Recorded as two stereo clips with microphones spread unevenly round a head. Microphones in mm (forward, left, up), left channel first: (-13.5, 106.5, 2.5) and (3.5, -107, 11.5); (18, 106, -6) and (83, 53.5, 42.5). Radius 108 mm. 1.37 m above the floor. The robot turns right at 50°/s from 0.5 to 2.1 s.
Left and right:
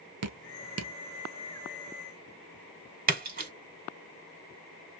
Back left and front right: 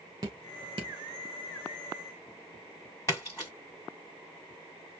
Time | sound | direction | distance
0.2 | dripping | 80° right | 0.6 m
3.1 | a splash | 125° right | 1.7 m